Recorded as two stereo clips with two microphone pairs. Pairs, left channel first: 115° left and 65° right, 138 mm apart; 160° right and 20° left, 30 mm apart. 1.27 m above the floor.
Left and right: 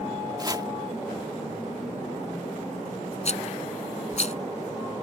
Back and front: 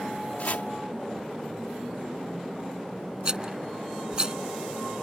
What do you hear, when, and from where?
0.4 s chopping: 130° right
3.2 s a rattle: 85° left